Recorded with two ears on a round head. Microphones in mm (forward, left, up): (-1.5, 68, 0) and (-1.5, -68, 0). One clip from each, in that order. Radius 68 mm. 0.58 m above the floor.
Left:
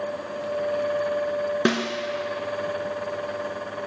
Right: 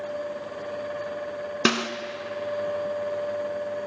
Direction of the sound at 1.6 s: 70° right (ahead or behind).